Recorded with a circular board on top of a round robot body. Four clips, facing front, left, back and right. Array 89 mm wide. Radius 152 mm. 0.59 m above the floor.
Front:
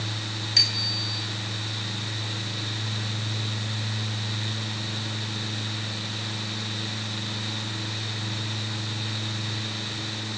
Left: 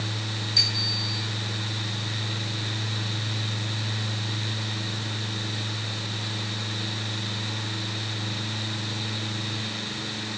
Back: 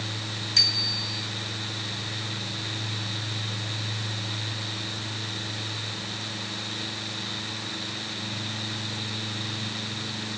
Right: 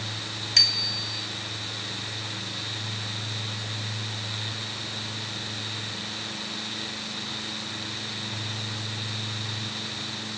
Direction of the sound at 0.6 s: 70° right.